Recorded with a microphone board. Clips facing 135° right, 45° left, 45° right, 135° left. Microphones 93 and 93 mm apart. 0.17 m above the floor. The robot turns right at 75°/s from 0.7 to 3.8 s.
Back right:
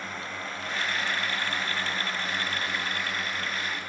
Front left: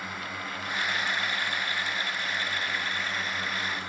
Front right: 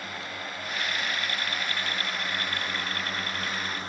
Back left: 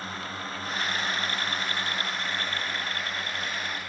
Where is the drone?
120° left; by 3.9 s 10° right.